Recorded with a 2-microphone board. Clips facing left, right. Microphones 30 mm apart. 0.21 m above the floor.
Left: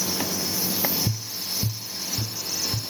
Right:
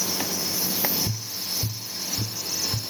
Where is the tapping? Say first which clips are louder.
Left 1 dB; 20° left (ahead or behind), 1.8 m.